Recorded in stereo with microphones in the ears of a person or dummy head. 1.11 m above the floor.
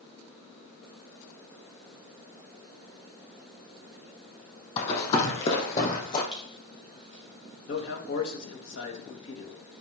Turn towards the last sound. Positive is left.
turn(degrees=60)  # may be behind; listen again after turning